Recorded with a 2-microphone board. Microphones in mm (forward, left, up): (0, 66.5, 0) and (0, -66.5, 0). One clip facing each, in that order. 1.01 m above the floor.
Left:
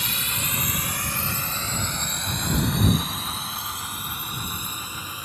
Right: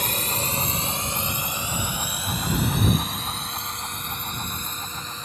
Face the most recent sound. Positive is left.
turn(degrees=10)  # may be behind; listen again after turning